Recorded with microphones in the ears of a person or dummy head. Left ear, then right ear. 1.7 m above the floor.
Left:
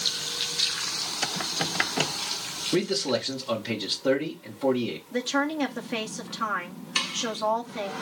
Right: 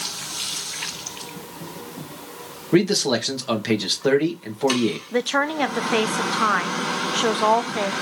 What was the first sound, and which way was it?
A man speaking, 65° right (ahead or behind).